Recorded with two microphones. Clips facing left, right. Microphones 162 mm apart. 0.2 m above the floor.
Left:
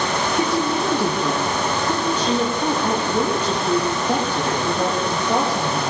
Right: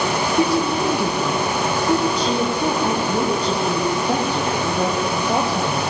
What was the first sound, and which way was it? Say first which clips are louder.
A woman speaking: right 3 dB; 35° right (ahead or behind).